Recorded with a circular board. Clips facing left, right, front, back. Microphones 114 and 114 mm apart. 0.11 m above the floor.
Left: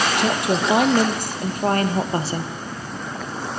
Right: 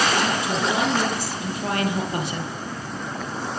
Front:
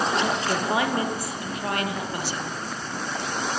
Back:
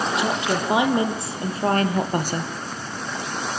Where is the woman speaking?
100° left, 4.5 m; by 2.5 s 150° left, 4 m.